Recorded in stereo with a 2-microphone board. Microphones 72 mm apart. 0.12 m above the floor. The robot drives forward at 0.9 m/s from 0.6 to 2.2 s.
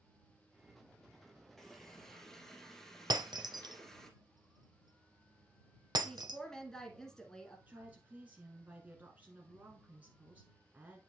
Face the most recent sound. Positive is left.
turn(degrees=-20)  # may be behind; listen again after turning